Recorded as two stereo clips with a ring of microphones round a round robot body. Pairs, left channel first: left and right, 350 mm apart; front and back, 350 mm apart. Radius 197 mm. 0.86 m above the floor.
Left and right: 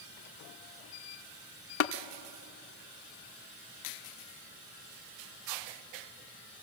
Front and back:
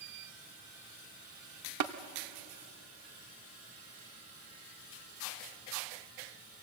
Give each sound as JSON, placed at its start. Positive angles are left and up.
{"t": 1.8, "sound": "tapping", "azimuth_deg": 135, "distance_m": 0.6}